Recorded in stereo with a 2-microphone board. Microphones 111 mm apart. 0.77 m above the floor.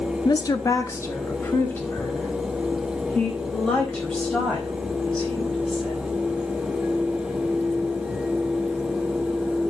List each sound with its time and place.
0.2 s a woman speaking: 35° left (ahead or behind), 1.0 m; by 6.1 s 5° left (ahead or behind), 6.5 m